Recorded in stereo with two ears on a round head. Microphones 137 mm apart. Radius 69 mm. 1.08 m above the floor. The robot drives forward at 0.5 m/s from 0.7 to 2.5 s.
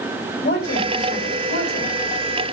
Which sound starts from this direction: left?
A woman speaking, at 0.4 s.